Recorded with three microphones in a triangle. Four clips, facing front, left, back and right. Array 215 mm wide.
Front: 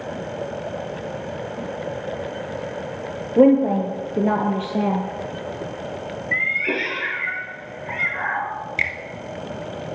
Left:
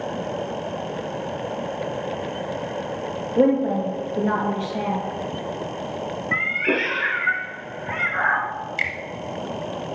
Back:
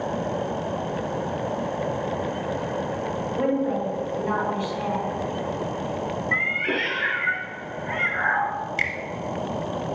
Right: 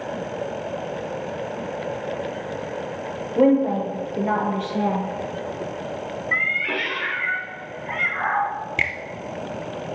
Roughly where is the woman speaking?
Ahead.